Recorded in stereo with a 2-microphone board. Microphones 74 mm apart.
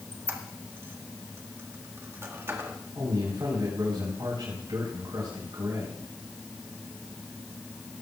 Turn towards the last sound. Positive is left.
turn(degrees=-85)